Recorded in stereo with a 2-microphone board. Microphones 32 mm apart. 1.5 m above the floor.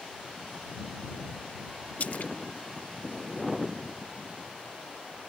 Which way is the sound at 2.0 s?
55° left (ahead or behind).